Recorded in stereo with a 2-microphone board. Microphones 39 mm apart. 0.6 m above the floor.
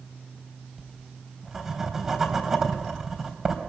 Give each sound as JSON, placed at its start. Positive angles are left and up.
{"t": 0.8, "sound": "writing", "side_deg": -15, "distance_m": 3.5}